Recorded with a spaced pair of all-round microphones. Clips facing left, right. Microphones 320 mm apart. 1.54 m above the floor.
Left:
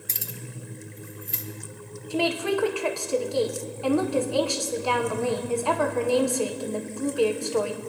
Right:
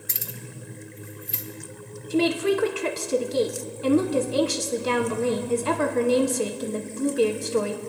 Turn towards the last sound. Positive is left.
turn(degrees=-25)  # may be behind; listen again after turning